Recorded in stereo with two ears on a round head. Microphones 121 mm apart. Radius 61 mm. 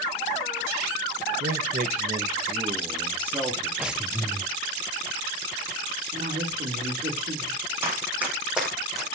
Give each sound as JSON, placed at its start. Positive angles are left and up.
{"t": 1.4, "sound": "a man speaking", "side_deg": -70, "distance_m": 1.5}
{"t": 3.8, "sound": "breathing", "side_deg": -5, "distance_m": 0.9}
{"t": 6.1, "sound": "a woman speaking", "side_deg": -65, "distance_m": 3.5}
{"t": 7.8, "sound": "running footsteps", "side_deg": -20, "distance_m": 4.5}